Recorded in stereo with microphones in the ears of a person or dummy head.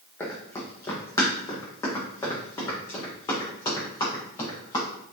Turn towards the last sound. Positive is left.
turn(degrees=20)  # may be behind; listen again after turning